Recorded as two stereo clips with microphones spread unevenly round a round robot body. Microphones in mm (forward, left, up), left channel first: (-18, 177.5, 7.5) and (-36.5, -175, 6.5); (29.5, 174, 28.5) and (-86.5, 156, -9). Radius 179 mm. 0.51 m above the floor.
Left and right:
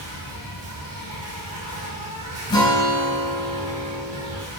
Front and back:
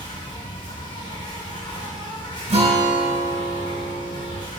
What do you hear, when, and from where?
0.0 s an insect: 25° right, 5 m
2.5 s a guitar: 165° left, 3.5 m